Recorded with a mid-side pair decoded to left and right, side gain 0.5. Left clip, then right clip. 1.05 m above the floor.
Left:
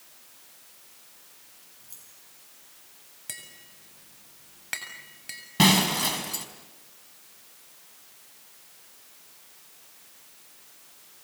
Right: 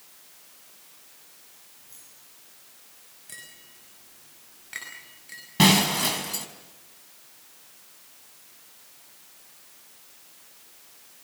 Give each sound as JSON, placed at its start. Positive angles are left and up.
{"t": 1.8, "sound": "keys jangling", "azimuth_deg": 45, "distance_m": 9.5}
{"t": 3.3, "sound": "tapping", "azimuth_deg": 65, "distance_m": 7.0}
{"t": 5.6, "sound": "breaking glass", "azimuth_deg": 0, "distance_m": 4.5}